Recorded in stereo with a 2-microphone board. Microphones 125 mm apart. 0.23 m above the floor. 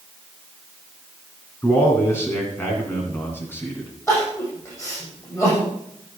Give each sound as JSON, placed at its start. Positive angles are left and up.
{"t": 1.6, "sound": "a man speaking", "side_deg": 20, "distance_m": 2.5}
{"t": 4.1, "sound": "crying", "side_deg": 20, "distance_m": 6.5}